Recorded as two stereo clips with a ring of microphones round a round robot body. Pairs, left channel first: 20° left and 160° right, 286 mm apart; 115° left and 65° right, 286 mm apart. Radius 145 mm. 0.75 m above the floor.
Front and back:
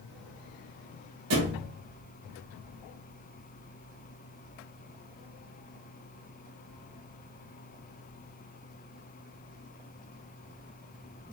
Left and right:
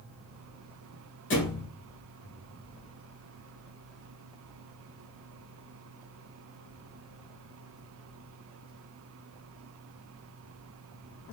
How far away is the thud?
About 1.6 m.